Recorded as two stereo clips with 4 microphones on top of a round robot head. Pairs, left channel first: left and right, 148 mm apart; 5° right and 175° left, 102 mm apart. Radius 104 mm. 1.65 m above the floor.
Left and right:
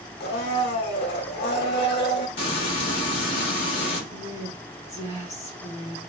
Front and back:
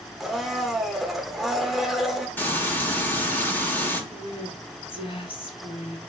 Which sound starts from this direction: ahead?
A woman speaking, at 4.1 s.